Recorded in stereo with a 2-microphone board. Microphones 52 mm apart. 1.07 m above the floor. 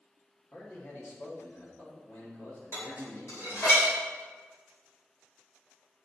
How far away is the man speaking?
About 1.7 m.